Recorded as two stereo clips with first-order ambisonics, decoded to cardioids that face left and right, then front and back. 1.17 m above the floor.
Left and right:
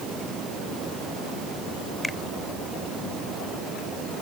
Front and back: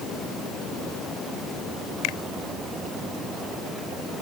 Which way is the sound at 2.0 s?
5° left.